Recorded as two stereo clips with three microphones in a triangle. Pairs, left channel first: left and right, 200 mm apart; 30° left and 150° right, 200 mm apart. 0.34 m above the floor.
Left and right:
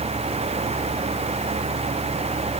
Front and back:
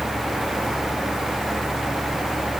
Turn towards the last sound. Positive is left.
No sound to turn to.